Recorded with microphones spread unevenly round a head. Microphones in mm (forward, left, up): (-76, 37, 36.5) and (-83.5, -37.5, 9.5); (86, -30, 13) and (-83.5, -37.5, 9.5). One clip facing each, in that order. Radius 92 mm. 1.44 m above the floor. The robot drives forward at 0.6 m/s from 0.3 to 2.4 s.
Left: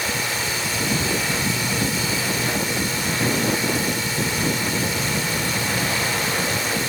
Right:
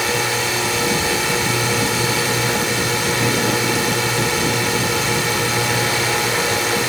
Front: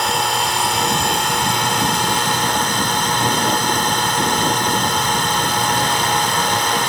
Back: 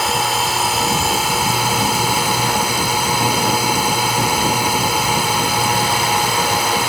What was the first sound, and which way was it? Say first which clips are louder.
A drone: right 6 dB, back 1 dB; 90° right.